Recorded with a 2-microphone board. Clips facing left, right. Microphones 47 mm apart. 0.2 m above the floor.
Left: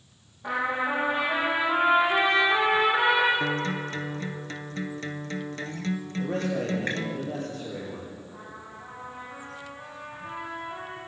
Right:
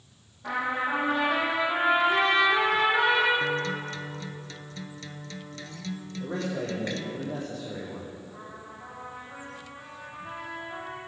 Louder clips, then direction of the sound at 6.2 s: Left 2 dB; 60° left (ahead or behind).